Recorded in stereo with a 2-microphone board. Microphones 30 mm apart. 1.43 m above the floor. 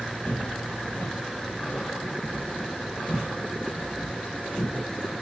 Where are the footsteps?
55° left (ahead or behind), 2.5 m; by 5.1 s 65° left (ahead or behind), 5 m.